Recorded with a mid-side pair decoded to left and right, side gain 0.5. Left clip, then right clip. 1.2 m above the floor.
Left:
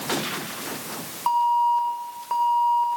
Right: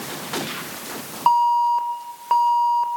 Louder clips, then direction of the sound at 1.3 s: Right 3 dB; 45° right.